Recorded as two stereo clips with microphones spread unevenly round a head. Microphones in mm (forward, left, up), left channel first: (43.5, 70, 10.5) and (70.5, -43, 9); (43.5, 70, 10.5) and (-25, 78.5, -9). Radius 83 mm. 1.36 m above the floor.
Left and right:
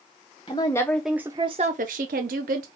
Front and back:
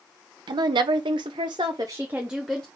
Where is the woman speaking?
170° left, 0.7 m; by 2.7 s 95° right, 0.9 m.